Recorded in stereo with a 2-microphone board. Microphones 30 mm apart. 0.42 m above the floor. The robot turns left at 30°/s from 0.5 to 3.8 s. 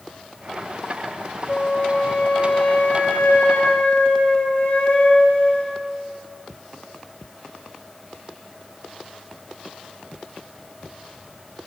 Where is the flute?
135° left, 0.9 m; by 5.8 s 65° left, 0.9 m.